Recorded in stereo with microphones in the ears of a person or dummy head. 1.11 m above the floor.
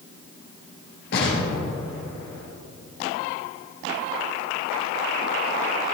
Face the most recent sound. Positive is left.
turn(degrees=55)  # may be behind; listen again after turning